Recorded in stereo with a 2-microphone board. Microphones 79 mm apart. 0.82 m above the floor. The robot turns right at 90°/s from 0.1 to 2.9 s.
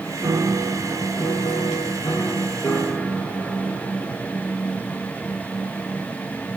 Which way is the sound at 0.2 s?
60° right.